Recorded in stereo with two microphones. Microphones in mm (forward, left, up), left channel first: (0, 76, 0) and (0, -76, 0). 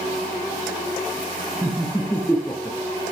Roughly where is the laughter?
Centre.